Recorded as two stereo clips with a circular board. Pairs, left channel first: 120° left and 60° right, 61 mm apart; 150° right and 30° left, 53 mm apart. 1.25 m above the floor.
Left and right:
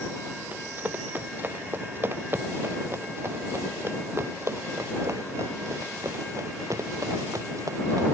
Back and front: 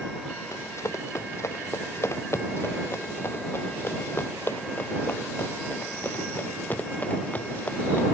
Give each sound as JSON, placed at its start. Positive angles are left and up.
{"t": 0.5, "sound": "running footsteps", "azimuth_deg": -120}